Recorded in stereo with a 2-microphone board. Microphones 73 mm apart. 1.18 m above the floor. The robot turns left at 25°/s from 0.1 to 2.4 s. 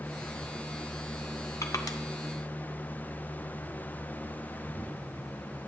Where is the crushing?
45° left (ahead or behind), 0.7 m; by 2.0 s 55° left (ahead or behind), 0.7 m.